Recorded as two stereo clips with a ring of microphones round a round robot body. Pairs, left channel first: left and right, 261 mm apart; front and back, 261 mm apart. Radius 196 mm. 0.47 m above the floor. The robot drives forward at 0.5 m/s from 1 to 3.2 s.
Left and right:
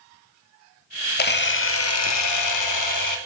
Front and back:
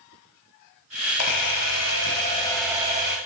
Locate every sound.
1.2 s a camera shutter: 35° left, 0.9 m; by 3.2 s 120° left, 0.6 m